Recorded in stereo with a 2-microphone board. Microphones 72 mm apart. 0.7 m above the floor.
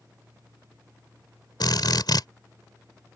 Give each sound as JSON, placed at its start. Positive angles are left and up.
{"t": 1.6, "sound": "a drill", "side_deg": 75}